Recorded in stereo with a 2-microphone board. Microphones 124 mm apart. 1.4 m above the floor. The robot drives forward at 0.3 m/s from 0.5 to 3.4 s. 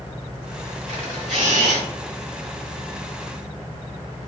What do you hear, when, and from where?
0.9 s a camera shutter: 75° right (ahead or behind), 1.8 m; by 1.8 s 80° right, 1.8 m